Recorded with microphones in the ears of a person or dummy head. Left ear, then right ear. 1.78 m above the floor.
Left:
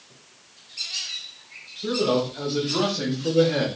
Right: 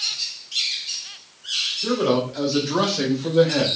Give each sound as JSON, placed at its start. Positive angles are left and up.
{"t": 1.8, "sound": "a man speaking", "side_deg": -80, "distance_m": 1.4}